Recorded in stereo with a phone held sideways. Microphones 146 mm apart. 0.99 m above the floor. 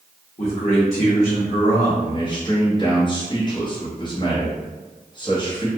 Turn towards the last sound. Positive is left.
turn(degrees=30)  # may be behind; listen again after turning